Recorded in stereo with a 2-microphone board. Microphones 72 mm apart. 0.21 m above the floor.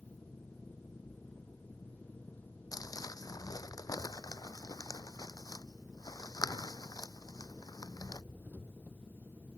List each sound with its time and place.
0.0 s an engine running: 20° left (ahead or behind)
2.7 s crumpling: 60° left (ahead or behind)